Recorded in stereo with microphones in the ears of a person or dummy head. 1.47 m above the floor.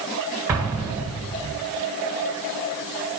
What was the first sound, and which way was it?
An explosion, 15° right (ahead or behind).